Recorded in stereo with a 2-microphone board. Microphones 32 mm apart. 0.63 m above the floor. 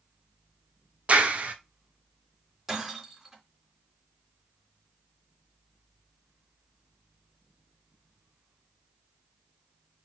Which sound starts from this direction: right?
A clap, at 1.1 s.